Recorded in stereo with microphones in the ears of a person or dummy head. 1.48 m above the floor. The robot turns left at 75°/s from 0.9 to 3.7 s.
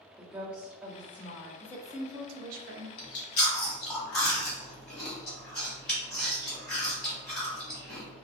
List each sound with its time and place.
0.2 s a woman speaking: 170° right, 0.9 m; by 1.5 s 145° left, 0.9 m
1.6 s a woman speaking: 20° left, 0.6 m; by 2.9 s 75° right, 0.6 m
3.0 s chewing: 60° left (ahead or behind), 1.3 m; by 8.2 s 5° left (ahead or behind), 1.3 m